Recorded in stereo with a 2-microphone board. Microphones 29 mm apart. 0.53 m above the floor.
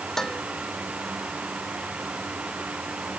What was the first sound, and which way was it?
Dishes clattering, 20° left (ahead or behind).